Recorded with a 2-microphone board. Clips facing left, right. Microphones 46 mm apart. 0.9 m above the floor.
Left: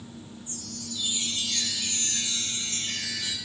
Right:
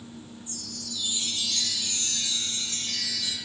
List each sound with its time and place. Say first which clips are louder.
0.5 s a chime: left 2 dB; 35° left (ahead or behind), 9 m